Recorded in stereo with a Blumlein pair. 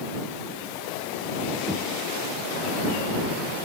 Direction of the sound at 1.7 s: Straight ahead.